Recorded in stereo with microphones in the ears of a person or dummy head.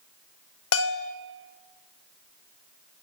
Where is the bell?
70° left (ahead or behind), 1.1 m.